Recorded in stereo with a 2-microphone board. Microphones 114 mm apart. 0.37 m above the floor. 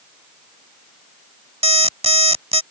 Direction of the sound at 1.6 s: 65° right (ahead or behind).